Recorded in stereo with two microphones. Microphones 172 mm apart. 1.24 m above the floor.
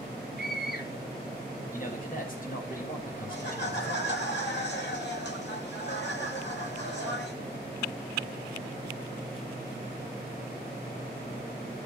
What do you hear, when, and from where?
0.4 s a scream: 60° left (ahead or behind), 7.5 m
1.7 s a man speaking: 50° left (ahead or behind), 8 m
3.3 s laughter: 85° left, 8.5 m